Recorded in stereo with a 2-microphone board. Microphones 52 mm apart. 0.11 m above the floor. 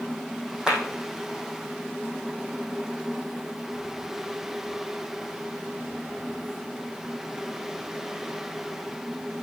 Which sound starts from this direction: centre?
A clap, at 0.7 s.